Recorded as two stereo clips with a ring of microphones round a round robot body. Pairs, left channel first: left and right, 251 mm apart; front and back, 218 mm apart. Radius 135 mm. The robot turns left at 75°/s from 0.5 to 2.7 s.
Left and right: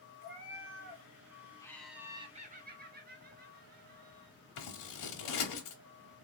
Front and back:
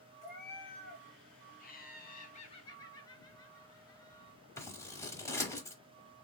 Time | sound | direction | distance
0.2 | a cat meowing | 5° right | 1.8 m
1.6 | laughter | 20° left | 0.9 m
4.6 | scissors | 75° left | 1.0 m